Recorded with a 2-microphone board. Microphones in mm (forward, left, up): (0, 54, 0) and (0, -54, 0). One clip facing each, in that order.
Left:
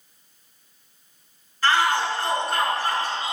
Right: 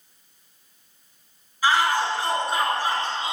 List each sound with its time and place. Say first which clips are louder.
1.6 s a shout: even; 10° right (ahead or behind), 4.5 m; by 3.3 s 25° right (ahead or behind), 5 m